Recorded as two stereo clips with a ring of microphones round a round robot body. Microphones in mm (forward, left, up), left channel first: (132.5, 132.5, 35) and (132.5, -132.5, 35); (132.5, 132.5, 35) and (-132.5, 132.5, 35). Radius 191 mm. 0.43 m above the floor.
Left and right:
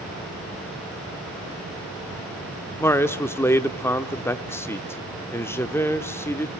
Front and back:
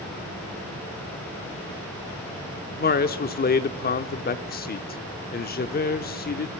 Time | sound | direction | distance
2.8 | a man speaking | 15° left | 0.8 m